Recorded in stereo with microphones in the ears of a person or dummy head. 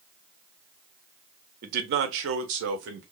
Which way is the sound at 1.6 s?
50° right (ahead or behind).